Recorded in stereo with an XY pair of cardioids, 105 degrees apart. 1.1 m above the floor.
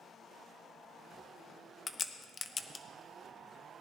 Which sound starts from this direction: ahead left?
A crack, at 1.9 s.